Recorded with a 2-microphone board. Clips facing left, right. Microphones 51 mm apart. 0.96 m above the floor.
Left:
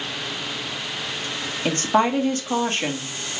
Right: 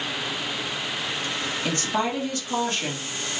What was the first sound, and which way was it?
A woman speaking, 35° left (ahead or behind).